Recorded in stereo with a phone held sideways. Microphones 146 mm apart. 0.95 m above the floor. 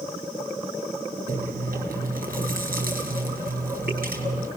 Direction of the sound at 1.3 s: 80° right.